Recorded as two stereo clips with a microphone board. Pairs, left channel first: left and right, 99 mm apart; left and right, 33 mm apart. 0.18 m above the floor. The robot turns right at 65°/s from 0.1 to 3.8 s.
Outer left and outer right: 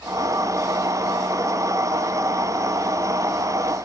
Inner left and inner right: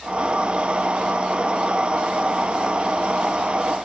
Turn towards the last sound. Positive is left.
No sound to turn to.